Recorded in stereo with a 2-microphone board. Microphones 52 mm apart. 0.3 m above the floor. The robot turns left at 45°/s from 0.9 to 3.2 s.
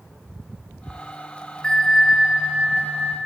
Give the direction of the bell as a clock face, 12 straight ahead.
11 o'clock.